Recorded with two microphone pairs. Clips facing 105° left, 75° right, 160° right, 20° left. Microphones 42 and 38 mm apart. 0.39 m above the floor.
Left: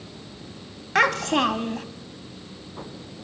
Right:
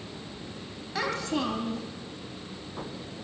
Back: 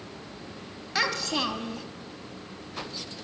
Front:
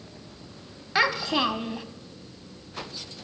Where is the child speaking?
90° left, 1.6 m.